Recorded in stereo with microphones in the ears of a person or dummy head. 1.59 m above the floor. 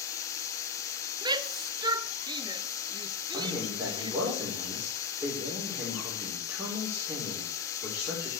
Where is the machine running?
15° left (ahead or behind), 1.1 m.